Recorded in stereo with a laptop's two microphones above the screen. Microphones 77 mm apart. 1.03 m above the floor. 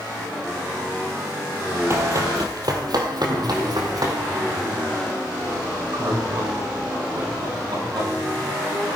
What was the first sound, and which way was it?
Running footsteps, 35° right (ahead or behind).